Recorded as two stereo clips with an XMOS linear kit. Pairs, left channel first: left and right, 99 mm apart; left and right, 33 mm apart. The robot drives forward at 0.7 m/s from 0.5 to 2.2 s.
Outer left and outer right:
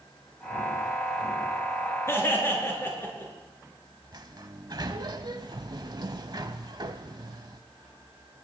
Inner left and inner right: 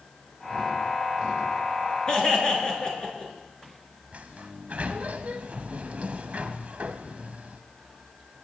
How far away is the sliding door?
About 0.8 m.